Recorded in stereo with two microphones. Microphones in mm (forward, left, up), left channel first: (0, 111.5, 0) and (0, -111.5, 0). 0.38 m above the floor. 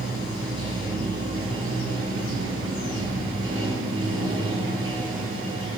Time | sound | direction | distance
0.0 | running water | 80° right | 1.3 m